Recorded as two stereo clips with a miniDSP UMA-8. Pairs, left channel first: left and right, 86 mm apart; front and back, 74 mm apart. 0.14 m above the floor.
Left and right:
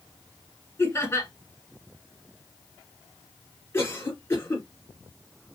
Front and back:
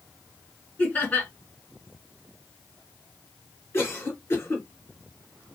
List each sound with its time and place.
0.8 s laughter: 55° left, 1.9 m
3.7 s a cough: 40° left, 2.5 m